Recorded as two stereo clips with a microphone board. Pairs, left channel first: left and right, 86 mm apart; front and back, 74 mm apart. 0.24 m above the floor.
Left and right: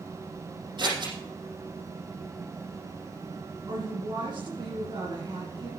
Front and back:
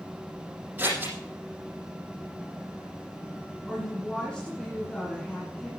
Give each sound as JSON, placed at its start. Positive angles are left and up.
{"t": 0.8, "sound": "scissors", "azimuth_deg": -115, "distance_m": 6.5}
{"t": 3.7, "sound": "a woman speaking", "azimuth_deg": -75, "distance_m": 3.0}